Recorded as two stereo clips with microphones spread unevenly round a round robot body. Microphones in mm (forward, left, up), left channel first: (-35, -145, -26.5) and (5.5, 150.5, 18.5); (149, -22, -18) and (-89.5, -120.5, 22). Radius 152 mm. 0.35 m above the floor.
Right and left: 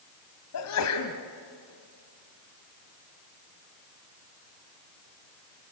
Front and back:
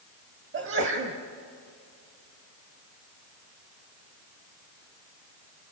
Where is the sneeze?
115° right, 1.9 m.